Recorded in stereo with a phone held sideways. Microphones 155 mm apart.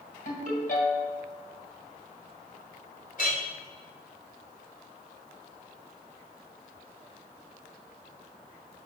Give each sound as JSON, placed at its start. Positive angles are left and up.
{"t": 0.2, "sound": "a ringtone", "side_deg": 60, "distance_m": 2.5}
{"t": 3.2, "sound": "a clink", "side_deg": 60, "distance_m": 3.0}